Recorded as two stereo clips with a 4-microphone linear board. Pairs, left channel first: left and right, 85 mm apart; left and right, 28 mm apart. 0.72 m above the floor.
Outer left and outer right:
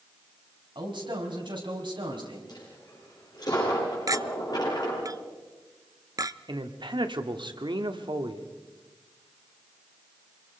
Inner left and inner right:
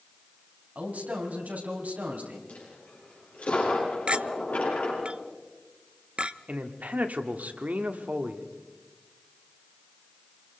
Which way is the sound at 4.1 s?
45° right (ahead or behind).